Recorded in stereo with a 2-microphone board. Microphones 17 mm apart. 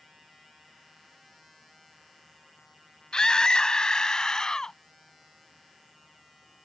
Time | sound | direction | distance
3.1 | a scream | 50° left (ahead or behind) | ?